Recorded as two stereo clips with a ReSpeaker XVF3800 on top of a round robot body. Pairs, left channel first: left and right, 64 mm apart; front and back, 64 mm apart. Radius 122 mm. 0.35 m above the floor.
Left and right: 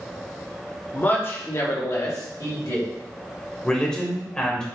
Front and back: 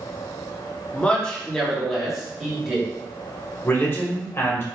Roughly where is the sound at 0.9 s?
Ahead left.